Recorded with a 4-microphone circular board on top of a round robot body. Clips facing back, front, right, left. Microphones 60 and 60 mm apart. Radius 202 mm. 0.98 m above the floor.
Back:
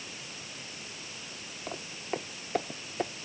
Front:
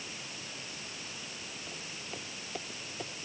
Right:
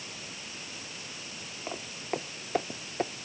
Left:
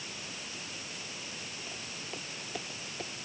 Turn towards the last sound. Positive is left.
turn(degrees=-135)